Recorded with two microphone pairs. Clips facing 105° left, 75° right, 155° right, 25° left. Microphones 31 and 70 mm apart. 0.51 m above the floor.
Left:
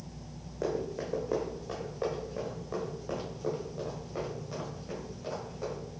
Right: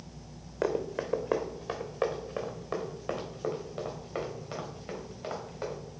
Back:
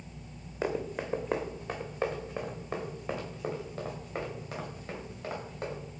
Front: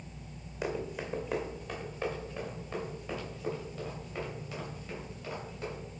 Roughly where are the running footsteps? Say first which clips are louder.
Right 3 dB, back 3 dB; right.